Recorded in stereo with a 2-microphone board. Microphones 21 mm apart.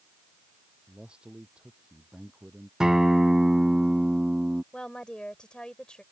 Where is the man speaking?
50° right (ahead or behind).